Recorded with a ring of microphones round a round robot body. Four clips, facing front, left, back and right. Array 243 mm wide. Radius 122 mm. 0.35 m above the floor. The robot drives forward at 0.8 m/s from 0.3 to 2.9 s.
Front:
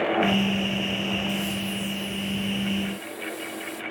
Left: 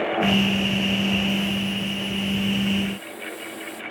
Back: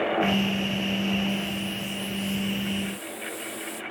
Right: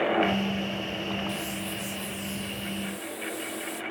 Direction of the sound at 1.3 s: 35° right.